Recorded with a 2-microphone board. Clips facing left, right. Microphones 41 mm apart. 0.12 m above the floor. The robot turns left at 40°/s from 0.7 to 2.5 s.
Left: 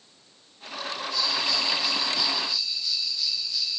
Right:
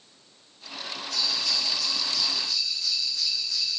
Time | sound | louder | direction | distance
1.1 | a bell | left 2 dB | 65° right | 2.5 m